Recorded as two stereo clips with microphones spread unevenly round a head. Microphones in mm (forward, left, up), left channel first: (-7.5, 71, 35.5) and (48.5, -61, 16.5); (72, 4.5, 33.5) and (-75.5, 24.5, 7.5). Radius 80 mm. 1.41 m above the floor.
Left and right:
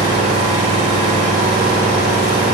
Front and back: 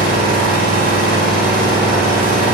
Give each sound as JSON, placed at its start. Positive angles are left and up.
{"t": 0.0, "sound": "an engine running", "azimuth_deg": 145, "distance_m": 5.0}